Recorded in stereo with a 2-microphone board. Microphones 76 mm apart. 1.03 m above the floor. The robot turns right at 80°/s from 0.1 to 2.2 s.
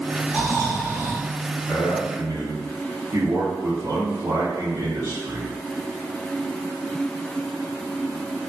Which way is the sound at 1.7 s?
175° left.